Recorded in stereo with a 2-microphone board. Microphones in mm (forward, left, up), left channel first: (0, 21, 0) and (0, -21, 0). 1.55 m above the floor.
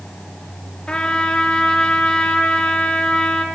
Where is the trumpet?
25° left (ahead or behind), 2.5 m.